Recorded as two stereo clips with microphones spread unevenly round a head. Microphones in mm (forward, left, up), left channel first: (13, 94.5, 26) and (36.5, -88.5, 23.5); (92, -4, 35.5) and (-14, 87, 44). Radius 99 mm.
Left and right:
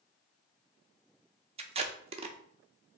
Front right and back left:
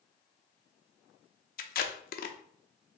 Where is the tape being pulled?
25° right, 0.6 m.